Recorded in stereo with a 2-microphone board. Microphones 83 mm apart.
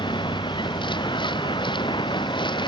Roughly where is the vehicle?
Left.